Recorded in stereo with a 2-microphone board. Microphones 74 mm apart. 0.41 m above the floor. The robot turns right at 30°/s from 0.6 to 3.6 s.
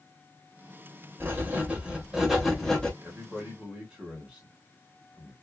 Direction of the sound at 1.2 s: 35° right.